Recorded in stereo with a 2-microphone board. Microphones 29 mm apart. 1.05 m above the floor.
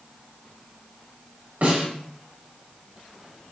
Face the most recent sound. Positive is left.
turn(degrees=-70)  # may be behind; listen again after turning